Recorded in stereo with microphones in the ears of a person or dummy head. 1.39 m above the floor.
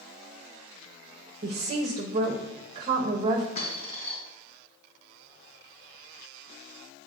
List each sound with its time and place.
1.4 s a woman speaking: 30° right (ahead or behind), 0.7 m
3.5 s a dropped coin: 40° left (ahead or behind), 3 m